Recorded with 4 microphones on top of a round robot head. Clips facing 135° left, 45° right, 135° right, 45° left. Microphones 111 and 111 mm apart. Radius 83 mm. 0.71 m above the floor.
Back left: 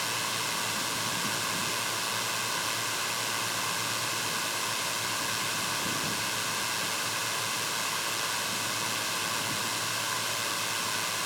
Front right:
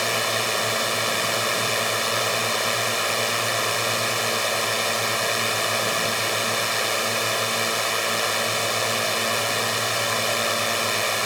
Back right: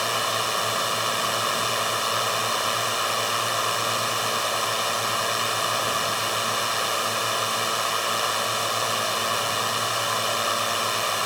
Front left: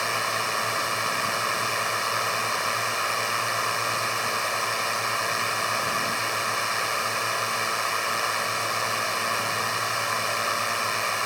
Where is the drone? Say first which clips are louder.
Front right 10 dB, back right 2 dB; 60° right.